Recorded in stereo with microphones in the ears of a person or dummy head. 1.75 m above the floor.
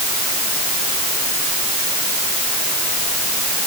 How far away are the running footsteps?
I don't hear running footsteps.